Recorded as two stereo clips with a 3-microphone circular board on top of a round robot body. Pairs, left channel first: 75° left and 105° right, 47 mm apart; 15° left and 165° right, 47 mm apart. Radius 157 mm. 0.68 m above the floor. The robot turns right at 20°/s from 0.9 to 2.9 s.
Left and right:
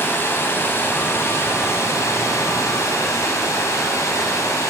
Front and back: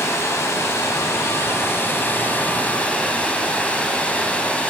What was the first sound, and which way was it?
Running water, 40° left.